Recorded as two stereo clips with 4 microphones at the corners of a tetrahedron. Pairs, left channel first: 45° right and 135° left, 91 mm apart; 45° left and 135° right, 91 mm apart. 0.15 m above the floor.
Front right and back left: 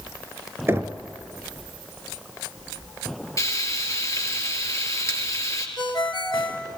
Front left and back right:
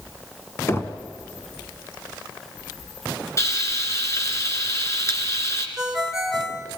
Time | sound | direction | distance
0.7 | knocking | 90° left | 1.2 m
3.4 | frying | straight ahead | 2.5 m
5.8 | a ringtone | 50° right | 1.9 m